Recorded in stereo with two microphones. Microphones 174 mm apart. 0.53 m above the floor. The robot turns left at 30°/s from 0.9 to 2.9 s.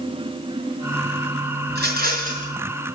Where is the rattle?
70° right (ahead or behind), 4 m; by 2.5 s 45° right (ahead or behind), 4 m.